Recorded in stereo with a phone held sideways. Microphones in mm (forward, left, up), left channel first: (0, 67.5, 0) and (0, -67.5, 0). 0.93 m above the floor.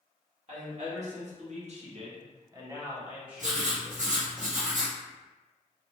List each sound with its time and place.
0.5 s a woman speaking: 55° right (ahead or behind), 1.4 m; by 4.2 s 5° left (ahead or behind), 1.5 m
3.4 s writing: 65° right (ahead or behind), 1.0 m